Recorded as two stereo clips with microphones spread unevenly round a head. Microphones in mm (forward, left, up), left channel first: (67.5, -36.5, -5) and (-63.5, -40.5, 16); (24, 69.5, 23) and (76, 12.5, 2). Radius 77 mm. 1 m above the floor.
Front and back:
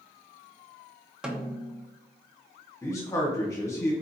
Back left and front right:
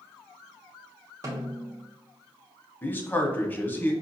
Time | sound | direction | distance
1.2 | a snare drum | 90° right | 0.7 m
2.8 | a man speaking | 60° left | 0.9 m